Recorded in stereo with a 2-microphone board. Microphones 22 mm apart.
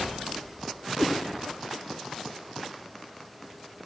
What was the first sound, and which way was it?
A cat meowing, 45° left (ahead or behind).